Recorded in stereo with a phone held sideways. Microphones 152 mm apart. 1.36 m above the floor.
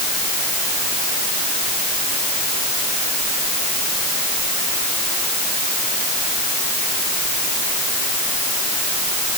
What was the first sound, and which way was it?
Only background noise.